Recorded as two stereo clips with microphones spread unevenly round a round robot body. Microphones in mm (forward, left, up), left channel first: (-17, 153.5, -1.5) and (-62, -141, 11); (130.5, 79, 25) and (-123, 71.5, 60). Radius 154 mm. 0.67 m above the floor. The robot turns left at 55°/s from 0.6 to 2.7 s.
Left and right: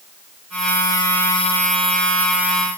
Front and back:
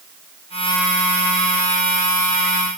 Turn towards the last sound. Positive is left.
No sound to turn to.